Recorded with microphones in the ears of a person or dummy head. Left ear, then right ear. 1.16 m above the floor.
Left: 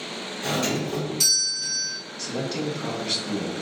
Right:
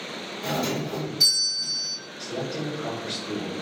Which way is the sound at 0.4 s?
45° left (ahead or behind).